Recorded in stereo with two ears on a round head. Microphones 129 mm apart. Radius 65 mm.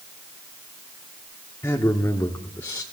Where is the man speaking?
15° left (ahead or behind), 1.0 m.